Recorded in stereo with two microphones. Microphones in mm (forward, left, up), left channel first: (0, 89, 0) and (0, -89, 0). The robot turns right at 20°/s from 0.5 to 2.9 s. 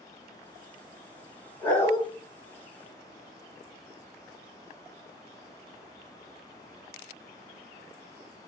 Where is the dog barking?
15° left (ahead or behind), 2 m; by 2.0 s 25° left (ahead or behind), 2 m.